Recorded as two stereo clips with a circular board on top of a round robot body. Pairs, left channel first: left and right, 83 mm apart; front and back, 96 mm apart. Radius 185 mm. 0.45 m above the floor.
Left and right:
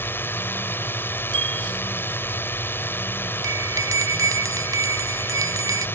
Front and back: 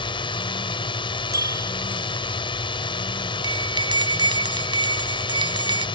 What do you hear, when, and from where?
0.0 s a drone: 25° left
1.3 s a bicycle bell: 120° right
3.4 s a bell: 140° right